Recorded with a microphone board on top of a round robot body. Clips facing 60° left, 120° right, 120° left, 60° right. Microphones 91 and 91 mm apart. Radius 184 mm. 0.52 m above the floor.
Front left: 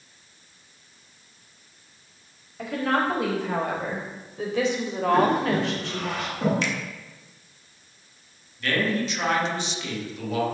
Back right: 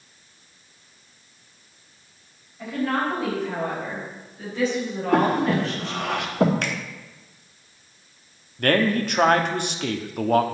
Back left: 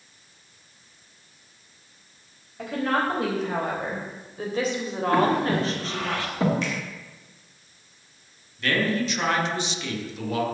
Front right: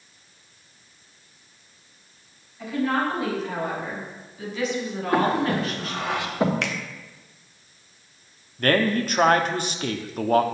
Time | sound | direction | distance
2.6 | a woman speaking | 80° left | 4.5 m
5.1 | breathing | 130° right | 2 m
6.6 | a finger snap | 85° right | 1.2 m
8.6 | a man speaking | 95° right | 1.4 m